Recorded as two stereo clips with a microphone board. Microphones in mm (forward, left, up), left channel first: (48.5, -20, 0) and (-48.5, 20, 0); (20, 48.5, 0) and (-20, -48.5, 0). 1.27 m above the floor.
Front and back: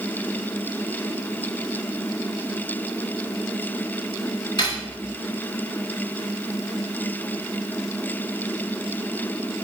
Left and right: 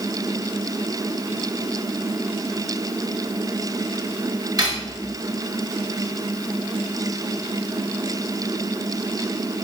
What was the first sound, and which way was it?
Cutlery clinking, 65° right.